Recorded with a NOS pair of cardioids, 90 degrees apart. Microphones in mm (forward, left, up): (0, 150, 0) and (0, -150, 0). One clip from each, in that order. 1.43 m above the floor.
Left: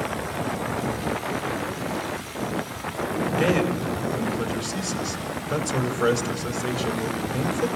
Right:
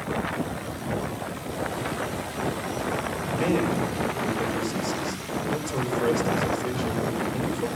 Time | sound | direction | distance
3.3 | a man speaking | 35° left | 5 m